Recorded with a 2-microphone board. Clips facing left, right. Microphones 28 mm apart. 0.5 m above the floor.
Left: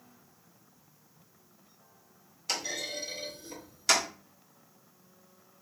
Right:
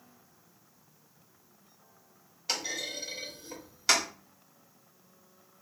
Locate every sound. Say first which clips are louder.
2.5 s a clunk: even; 10° right (ahead or behind), 1.3 m